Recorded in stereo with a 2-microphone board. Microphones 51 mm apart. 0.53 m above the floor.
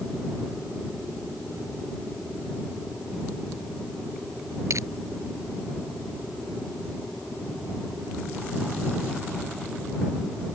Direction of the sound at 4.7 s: 80° right.